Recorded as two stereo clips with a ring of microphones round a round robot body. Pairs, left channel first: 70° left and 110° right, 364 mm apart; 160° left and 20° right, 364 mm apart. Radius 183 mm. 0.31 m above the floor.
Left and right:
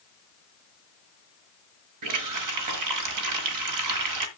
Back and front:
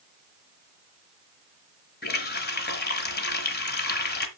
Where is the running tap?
140° right, 1.4 m.